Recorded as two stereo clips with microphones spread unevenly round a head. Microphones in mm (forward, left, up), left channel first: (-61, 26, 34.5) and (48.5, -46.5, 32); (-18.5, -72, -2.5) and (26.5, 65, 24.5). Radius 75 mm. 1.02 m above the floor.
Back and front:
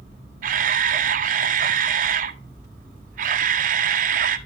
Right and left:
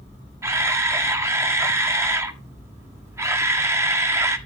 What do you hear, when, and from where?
0.4 s a camera shutter: straight ahead, 1.5 m